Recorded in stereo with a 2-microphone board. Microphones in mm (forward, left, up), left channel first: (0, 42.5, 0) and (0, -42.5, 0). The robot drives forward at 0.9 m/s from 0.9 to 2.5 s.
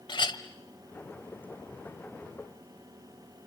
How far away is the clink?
About 1.4 m.